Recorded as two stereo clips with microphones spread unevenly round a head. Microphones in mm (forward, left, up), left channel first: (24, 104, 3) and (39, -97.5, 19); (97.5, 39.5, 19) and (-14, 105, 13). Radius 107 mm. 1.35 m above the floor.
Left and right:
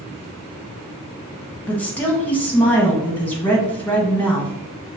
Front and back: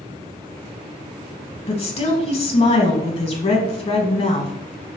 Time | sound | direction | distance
1.7 | a woman speaking | 10° left | 1.5 m